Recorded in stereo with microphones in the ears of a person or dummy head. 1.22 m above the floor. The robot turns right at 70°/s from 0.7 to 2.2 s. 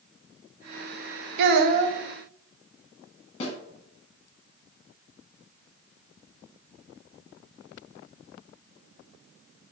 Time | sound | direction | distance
1.4 | a child speaking | 75° right | 0.5 m
3.4 | a snare drum | 30° left (ahead or behind) | 1.0 m